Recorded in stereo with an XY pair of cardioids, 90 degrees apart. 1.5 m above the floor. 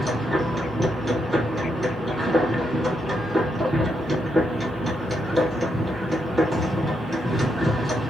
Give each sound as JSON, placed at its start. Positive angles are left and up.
{"t": 0.0, "sound": "a machine running", "azimuth_deg": -15, "distance_m": 1.4}